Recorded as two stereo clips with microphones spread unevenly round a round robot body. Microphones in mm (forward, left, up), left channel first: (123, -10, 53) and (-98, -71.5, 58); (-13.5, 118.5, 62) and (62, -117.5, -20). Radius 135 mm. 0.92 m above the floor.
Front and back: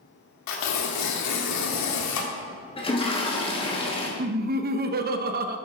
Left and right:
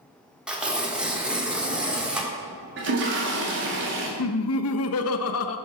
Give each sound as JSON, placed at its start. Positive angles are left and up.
{"t": 0.5, "sound": "tearing paper", "azimuth_deg": 15, "distance_m": 1.4}
{"t": 2.8, "sound": "a toilet flushing", "azimuth_deg": -50, "distance_m": 2.0}
{"t": 4.2, "sound": "laughter", "azimuth_deg": 150, "distance_m": 0.7}